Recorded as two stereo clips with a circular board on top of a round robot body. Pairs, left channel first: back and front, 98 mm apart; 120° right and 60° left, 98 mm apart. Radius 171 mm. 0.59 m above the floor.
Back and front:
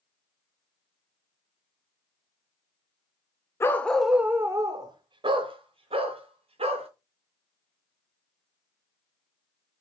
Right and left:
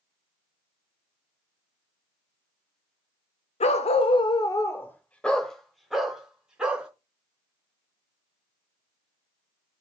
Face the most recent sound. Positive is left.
turn(degrees=-20)